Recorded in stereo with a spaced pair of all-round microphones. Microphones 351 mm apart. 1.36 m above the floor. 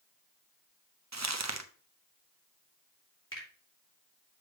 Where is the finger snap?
35° left (ahead or behind), 3 m.